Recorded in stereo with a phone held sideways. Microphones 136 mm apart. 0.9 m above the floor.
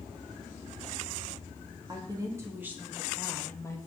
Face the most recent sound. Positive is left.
turn(degrees=25)  # may be behind; listen again after turning